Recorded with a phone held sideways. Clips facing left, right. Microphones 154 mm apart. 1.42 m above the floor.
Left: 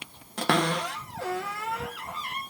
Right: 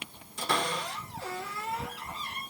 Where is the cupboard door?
75° left (ahead or behind), 1.3 m.